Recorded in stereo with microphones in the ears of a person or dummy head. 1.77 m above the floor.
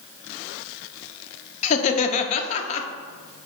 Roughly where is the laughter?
Left.